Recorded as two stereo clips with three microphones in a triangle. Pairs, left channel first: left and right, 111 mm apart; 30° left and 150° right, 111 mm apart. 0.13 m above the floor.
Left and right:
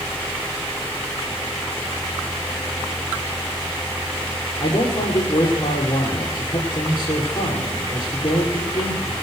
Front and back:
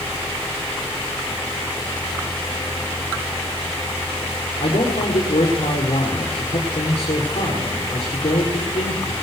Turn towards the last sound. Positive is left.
turn(degrees=50)